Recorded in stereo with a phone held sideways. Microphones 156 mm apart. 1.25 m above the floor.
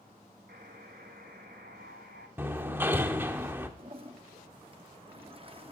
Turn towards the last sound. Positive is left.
turn(degrees=-35)  # may be behind; listen again after turning